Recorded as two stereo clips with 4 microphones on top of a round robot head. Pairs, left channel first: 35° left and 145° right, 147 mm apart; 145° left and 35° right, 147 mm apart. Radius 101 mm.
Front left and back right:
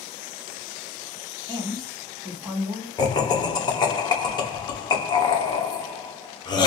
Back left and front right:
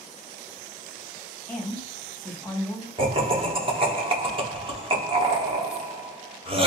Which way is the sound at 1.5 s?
140° right.